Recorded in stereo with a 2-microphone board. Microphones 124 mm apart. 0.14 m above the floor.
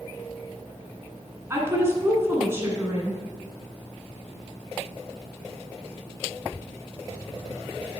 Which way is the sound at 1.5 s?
20° right (ahead or behind).